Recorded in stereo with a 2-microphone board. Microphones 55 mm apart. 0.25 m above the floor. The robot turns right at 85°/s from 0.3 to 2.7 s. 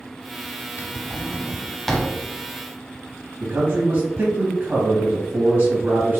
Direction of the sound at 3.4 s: 40° right (ahead or behind).